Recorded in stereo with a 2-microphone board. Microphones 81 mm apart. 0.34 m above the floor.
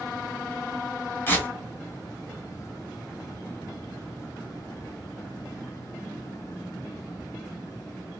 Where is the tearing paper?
25° left (ahead or behind), 1.2 m.